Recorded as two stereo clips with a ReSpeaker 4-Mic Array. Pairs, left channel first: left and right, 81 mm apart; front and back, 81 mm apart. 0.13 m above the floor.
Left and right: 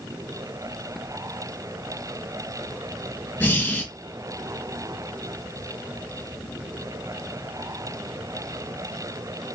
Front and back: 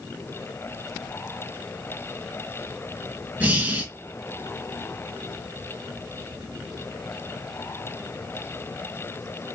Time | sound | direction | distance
3.4 | breathing | 130° left | 0.6 m